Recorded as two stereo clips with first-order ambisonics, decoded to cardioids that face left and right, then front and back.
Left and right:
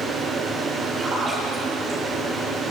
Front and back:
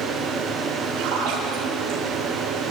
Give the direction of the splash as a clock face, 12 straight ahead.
6 o'clock.